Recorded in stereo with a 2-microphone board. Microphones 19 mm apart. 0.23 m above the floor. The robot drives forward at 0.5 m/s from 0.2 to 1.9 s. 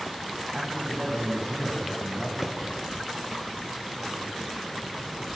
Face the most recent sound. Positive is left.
turn(degrees=-25)  # may be behind; listen again after turning